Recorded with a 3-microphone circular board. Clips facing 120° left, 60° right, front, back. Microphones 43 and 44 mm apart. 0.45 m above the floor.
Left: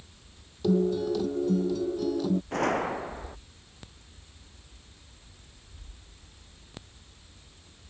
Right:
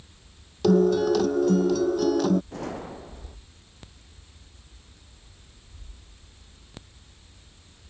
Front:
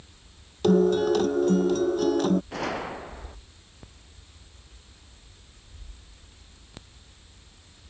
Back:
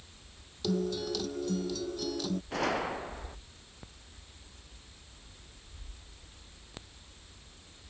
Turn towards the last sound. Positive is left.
turn(degrees=90)